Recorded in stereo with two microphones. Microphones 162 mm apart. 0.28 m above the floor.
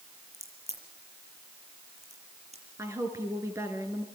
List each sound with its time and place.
0.3 s a crack: 45° right (ahead or behind), 6.5 m
2.8 s a woman speaking: 15° right (ahead or behind), 4 m